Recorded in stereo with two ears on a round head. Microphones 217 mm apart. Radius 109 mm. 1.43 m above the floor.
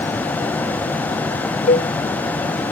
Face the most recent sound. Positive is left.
turn(degrees=30)  # may be behind; listen again after turning